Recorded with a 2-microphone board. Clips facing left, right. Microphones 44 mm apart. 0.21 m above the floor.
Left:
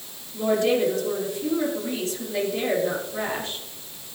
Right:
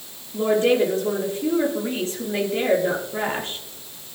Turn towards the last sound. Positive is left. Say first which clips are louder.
# right 3 dB
turn(degrees=-40)  # may be behind; listen again after turning